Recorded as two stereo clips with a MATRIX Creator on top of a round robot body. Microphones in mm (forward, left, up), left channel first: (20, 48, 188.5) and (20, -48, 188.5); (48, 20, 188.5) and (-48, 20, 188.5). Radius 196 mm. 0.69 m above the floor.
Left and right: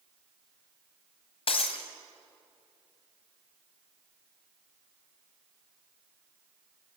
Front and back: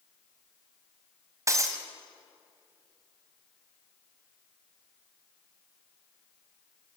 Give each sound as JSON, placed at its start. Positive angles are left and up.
{"t": 1.5, "sound": "breaking glass", "azimuth_deg": 120, "distance_m": 1.3}